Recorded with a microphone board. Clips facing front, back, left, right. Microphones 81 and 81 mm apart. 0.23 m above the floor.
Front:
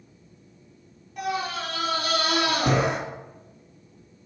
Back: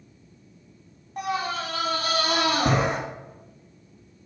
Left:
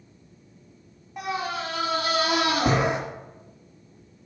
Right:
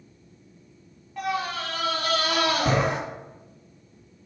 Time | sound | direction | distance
1.2 | a scream | 155° left | 2 m